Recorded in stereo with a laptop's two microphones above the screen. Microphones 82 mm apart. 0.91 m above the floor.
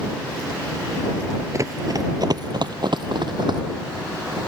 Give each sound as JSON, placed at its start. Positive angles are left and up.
{"t": 1.5, "sound": "running footsteps", "side_deg": -40}